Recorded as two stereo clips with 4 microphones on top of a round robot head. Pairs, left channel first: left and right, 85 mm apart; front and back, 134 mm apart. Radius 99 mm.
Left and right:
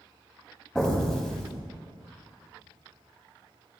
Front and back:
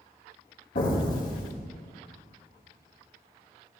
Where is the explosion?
5° left, 2 m.